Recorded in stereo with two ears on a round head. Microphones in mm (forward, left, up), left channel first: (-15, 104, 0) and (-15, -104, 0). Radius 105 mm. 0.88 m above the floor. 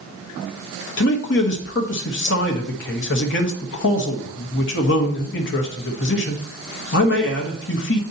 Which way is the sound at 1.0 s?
50° left (ahead or behind).